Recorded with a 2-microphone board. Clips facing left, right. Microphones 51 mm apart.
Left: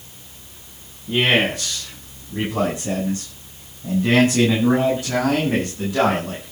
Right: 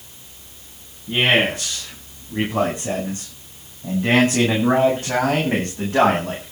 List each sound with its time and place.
1.1 s a man speaking: 15° right (ahead or behind), 9.5 m; by 6.5 s 40° right (ahead or behind), 8 m